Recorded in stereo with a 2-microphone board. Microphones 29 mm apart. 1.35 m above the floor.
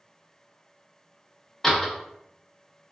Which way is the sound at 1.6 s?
15° left (ahead or behind).